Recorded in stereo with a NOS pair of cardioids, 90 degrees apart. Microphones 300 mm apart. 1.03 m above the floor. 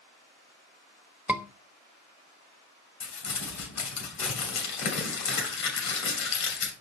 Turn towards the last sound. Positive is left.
turn(degrees=65)